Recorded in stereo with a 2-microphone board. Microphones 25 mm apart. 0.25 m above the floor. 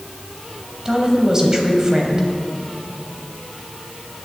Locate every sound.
0.8 s a woman speaking: 25° right (ahead or behind), 1.4 m